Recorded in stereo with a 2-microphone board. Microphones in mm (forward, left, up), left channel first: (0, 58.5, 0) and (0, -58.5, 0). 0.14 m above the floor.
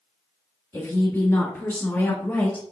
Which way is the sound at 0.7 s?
25° left (ahead or behind).